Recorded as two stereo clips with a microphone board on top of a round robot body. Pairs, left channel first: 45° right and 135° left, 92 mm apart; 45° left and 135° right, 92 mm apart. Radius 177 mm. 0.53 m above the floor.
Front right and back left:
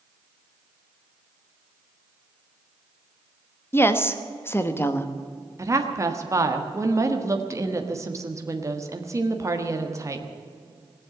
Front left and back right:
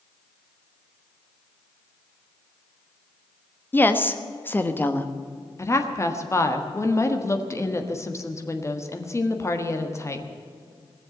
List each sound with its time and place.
3.7 s a woman speaking: 5° right, 1.4 m
5.6 s a woman speaking: 90° left, 1.6 m